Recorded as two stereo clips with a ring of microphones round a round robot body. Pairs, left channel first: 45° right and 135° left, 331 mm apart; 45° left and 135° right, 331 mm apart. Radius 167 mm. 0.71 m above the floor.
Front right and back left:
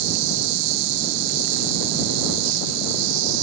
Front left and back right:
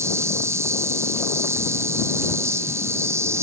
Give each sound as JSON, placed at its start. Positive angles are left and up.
{"t": 0.0, "sound": "an insect", "azimuth_deg": 145}